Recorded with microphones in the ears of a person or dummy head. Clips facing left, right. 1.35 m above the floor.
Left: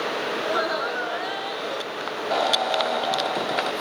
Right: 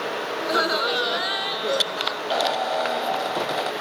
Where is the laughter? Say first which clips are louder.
Right 4 dB; 10° right (ahead or behind); by 2.2 s 65° right (ahead or behind).